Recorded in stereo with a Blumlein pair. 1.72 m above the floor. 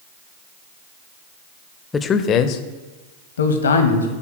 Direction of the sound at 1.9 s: 15° left.